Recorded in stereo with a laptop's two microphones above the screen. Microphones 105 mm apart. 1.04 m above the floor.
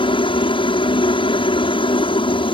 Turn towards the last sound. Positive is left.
turn(degrees=55)  # may be behind; listen again after turning